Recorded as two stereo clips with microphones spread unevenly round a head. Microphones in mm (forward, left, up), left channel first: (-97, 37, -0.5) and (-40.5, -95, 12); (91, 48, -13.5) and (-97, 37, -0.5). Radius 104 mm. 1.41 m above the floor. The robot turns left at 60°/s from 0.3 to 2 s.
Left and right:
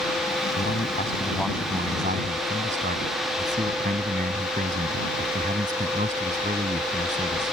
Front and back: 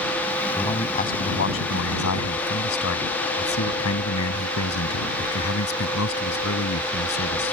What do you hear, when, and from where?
0.6 s a man speaking: 75° left; by 7.5 s 10° right